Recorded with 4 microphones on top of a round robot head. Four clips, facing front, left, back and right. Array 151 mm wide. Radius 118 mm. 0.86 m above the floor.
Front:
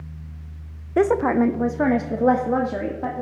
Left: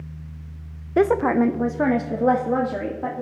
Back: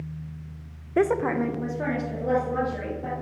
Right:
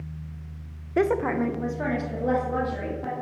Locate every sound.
1.0 s a woman speaking: 65° left, 0.8 m; by 3.2 s 35° left, 3 m